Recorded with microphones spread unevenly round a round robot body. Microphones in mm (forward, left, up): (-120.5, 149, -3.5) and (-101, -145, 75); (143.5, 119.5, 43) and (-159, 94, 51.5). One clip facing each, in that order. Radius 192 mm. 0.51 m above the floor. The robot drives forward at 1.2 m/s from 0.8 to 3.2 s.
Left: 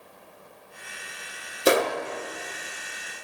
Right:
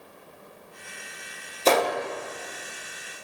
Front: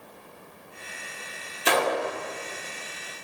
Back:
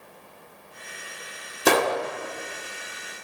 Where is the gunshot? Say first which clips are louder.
Left 1 dB, back 4 dB; 155° left, 1.7 m; by 2.0 s 160° left, 2 m.